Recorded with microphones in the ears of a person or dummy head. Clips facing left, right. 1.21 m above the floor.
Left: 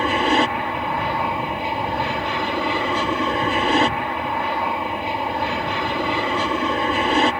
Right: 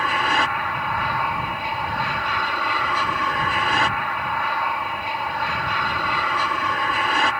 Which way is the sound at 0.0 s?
15° left (ahead or behind).